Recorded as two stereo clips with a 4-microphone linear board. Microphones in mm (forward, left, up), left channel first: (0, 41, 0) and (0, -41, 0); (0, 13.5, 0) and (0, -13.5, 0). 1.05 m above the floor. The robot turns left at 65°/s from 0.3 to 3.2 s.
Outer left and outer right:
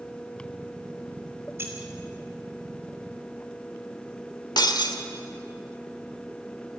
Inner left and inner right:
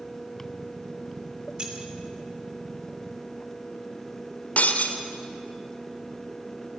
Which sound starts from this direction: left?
Breaking glass, at 4.6 s.